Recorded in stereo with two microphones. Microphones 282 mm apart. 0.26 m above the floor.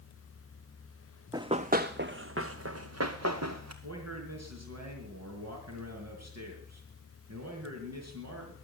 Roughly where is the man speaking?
Right.